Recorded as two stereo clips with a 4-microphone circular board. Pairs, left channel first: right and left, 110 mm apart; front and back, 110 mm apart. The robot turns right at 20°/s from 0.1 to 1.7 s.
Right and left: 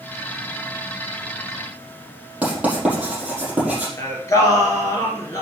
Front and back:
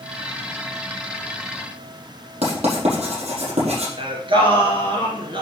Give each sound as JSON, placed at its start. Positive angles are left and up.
{"t": 2.4, "sound": "writing", "azimuth_deg": 170, "distance_m": 5.0}
{"t": 4.0, "sound": "singing", "azimuth_deg": -150, "distance_m": 3.0}